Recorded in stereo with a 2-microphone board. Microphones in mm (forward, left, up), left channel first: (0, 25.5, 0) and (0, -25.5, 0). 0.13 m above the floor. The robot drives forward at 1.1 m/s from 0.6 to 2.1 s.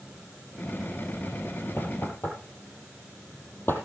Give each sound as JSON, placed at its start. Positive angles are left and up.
{"t": 1.8, "sound": "knocking", "side_deg": 50, "distance_m": 3.5}